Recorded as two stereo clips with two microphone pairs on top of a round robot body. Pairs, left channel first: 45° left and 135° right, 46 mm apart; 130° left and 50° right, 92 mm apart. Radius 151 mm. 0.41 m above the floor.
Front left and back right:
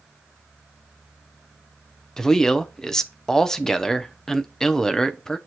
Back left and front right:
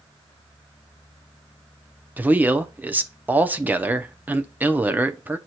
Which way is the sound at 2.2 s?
Straight ahead.